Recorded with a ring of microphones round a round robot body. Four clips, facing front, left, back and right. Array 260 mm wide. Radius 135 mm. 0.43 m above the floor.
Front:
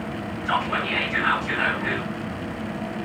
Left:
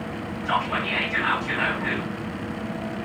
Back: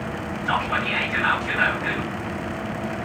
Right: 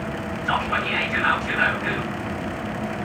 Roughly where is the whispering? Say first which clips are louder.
Right 1 dB, even; behind right.